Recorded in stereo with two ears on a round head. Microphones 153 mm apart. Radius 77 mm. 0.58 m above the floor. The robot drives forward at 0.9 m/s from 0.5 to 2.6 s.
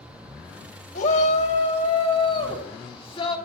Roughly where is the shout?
Left.